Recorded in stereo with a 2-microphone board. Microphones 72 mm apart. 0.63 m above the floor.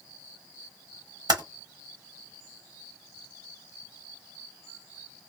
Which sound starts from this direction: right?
Typing on a keyboard, at 1.3 s.